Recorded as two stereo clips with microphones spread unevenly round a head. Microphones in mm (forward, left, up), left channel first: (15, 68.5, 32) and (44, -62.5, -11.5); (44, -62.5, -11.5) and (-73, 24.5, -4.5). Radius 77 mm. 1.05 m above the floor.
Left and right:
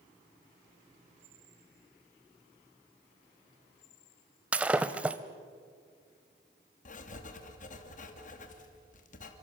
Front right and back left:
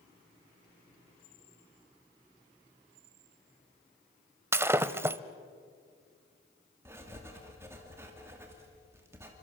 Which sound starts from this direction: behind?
Breaking glass, at 4.5 s.